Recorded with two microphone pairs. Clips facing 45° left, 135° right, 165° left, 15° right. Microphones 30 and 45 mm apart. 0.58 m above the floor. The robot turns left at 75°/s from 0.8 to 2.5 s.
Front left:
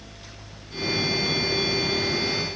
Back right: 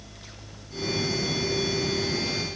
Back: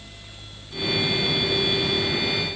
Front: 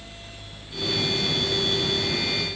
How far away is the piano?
I don't hear a piano.